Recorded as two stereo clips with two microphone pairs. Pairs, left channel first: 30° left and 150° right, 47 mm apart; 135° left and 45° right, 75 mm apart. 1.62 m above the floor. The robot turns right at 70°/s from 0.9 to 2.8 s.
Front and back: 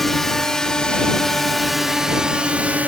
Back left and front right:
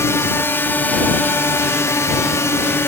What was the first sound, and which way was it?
A drone, 110° left.